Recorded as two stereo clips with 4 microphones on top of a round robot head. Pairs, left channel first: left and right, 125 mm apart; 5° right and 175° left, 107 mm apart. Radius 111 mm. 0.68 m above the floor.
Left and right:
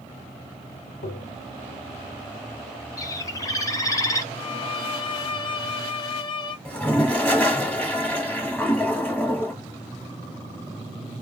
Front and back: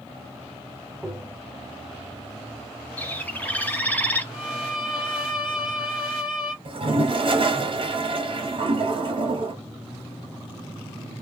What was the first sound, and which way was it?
Tapping, 90° left.